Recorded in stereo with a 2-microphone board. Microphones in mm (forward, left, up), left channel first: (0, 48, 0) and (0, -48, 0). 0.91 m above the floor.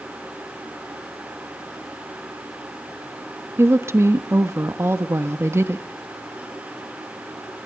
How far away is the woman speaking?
About 1.1 m.